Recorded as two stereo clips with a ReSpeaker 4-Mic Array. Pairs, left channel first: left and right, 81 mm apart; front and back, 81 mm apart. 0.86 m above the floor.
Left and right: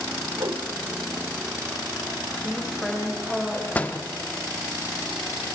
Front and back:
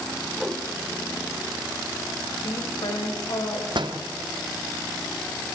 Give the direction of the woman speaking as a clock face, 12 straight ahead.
12 o'clock.